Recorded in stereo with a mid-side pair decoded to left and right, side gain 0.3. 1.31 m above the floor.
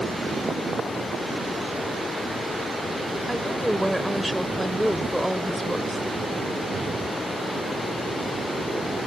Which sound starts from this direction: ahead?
A woman speaking, at 3.3 s.